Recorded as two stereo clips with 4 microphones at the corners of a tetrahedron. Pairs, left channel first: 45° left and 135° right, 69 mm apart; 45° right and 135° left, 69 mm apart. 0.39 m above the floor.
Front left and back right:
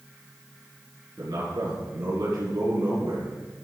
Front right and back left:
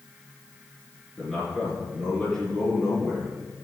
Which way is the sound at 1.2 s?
125° right.